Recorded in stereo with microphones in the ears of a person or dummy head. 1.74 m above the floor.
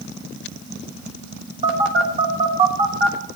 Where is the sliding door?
I don't hear a sliding door.